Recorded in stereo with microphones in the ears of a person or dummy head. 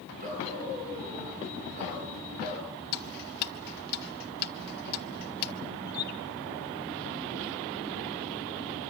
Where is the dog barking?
40° right (ahead or behind), 9.5 m.